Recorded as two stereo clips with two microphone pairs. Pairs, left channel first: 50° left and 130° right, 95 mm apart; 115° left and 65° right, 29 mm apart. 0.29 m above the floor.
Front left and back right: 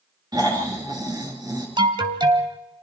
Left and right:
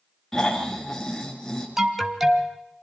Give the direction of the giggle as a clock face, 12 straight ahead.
No giggle in this recording.